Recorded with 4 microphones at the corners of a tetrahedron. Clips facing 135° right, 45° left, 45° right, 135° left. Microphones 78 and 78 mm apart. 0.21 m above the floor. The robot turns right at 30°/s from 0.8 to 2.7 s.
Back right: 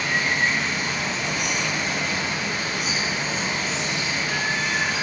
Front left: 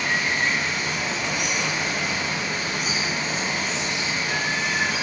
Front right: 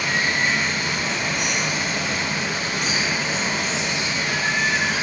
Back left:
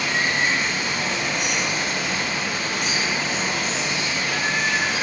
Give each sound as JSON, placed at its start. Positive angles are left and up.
{"t": 0.0, "sound": "running water", "azimuth_deg": -45, "distance_m": 1.8}